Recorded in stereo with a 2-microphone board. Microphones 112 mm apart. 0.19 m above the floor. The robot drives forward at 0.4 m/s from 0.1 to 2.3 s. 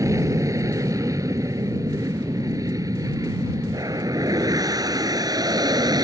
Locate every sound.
0.0 s an aircraft: 30° right (ahead or behind); by 6.0 s 35° right (ahead or behind)